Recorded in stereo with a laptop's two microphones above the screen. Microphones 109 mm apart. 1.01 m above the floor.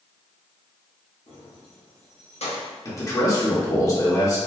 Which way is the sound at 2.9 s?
30° left (ahead or behind).